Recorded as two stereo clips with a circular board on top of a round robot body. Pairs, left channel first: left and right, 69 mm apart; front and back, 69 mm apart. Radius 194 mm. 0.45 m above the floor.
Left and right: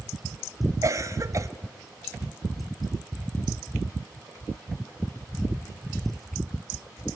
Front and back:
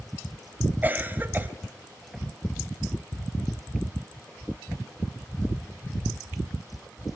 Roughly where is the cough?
Behind right.